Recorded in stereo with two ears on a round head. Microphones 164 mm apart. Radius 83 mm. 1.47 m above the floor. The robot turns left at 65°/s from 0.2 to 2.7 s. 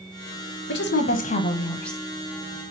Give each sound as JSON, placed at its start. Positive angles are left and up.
{"t": 0.7, "sound": "a woman speaking", "azimuth_deg": 85, "distance_m": 0.8}